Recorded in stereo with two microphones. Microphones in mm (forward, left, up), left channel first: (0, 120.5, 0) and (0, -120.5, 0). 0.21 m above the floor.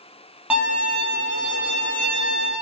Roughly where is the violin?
Centre.